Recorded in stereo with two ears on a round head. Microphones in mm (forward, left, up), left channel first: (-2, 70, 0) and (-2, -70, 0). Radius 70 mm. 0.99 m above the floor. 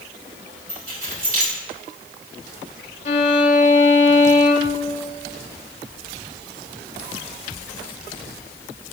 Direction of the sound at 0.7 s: 60° right (ahead or behind).